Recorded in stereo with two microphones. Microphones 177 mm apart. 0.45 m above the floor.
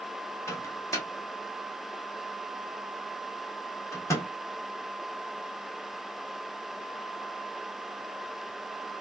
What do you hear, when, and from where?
0.5 s a microwave: 15° left (ahead or behind), 0.8 m